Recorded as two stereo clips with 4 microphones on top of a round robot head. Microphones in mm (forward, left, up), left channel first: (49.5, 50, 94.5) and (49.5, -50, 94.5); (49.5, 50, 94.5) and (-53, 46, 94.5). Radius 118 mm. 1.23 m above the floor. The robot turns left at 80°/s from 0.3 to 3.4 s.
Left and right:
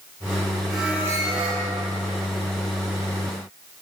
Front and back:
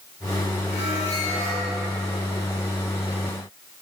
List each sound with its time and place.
0.7 s a squeak: straight ahead, 1.6 m; by 1.6 s 75° right, 1.6 m